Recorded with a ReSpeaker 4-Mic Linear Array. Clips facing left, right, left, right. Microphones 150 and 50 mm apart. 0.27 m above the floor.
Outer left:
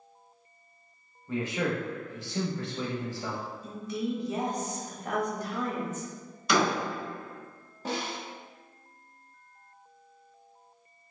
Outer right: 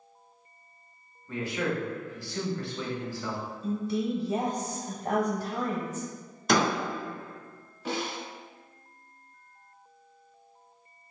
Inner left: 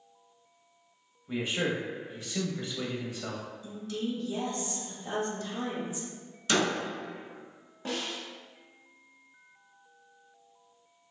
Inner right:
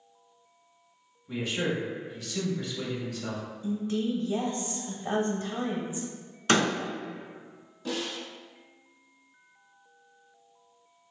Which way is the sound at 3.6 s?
35° right (ahead or behind).